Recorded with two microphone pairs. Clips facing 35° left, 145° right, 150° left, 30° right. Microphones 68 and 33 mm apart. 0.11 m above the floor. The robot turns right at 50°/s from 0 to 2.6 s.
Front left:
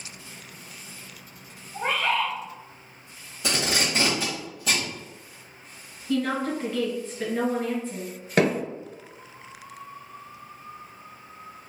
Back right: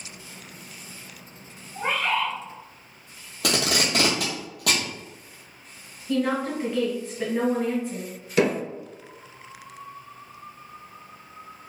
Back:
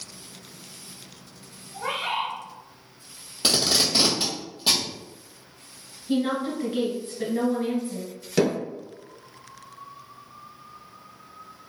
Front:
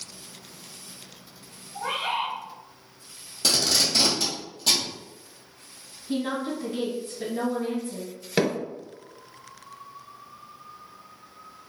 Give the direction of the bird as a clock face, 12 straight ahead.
8 o'clock.